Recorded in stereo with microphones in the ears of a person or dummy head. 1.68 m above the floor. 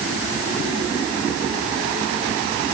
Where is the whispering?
No whispering in this recording.